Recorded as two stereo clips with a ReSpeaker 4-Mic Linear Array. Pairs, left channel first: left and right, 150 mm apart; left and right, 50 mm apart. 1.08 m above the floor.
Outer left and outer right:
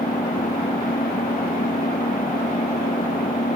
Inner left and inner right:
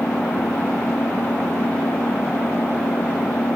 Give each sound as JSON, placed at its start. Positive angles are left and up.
{"t": 0.0, "sound": "an engine running", "side_deg": 65}